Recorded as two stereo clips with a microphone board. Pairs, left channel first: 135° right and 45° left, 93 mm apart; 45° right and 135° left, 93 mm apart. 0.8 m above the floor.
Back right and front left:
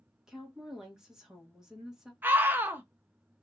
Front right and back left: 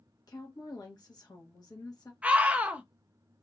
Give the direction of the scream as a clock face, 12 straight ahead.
9 o'clock.